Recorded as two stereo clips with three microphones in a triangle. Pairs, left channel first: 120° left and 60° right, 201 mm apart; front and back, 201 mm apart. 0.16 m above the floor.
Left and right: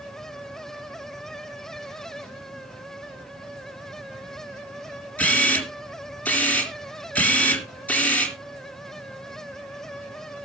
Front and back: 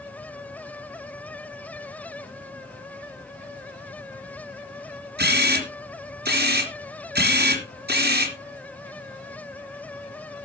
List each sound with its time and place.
5.2 s a camera shutter: 160° right, 3 m